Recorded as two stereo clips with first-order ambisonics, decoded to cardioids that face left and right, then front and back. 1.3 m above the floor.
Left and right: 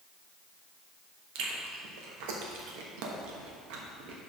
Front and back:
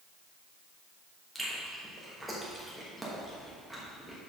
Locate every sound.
1.4 s chewing: 90° right, 1.1 m